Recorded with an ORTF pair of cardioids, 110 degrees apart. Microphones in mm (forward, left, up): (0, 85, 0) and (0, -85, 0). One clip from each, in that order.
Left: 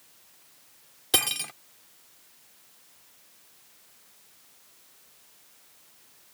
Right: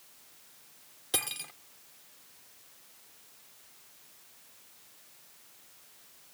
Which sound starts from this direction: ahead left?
Cutlery clinking, at 1.1 s.